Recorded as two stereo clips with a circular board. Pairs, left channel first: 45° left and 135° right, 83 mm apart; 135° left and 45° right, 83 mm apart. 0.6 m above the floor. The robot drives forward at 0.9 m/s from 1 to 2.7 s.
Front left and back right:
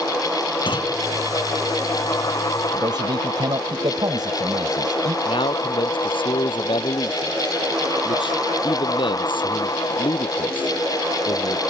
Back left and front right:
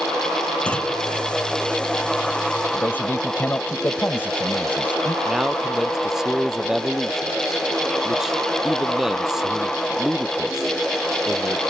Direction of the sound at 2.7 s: 160° right.